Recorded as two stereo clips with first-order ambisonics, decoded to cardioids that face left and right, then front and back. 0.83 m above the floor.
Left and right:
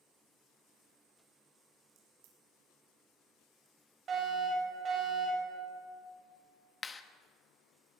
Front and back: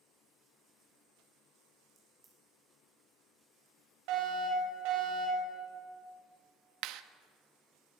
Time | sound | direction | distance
1.9 | a crack | 110° right | 6 m
4.1 | a fire alarm | 150° right | 7.5 m
6.8 | a clap | 160° left | 0.9 m